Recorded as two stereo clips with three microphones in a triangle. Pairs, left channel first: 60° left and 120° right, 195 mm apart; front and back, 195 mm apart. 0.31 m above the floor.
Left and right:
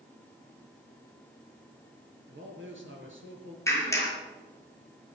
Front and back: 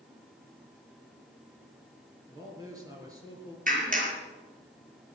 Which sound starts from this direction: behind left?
A clap, at 3.7 s.